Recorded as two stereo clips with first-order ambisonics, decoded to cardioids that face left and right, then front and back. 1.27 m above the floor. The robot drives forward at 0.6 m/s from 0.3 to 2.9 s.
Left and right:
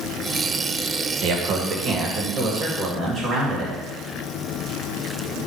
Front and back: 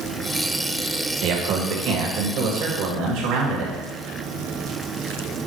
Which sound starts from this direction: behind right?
A man speaking, at 1.2 s.